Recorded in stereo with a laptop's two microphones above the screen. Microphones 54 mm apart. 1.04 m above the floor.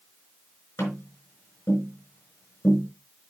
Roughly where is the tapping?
Left.